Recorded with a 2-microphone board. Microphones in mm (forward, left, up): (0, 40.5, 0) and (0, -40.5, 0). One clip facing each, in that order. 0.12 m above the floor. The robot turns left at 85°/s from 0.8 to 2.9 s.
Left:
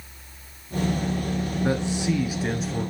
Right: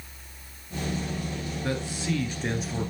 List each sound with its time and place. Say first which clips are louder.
1.6 s a man speaking: left 5 dB; 20° left (ahead or behind), 1.2 m; by 2.9 s 10° right (ahead or behind), 1.2 m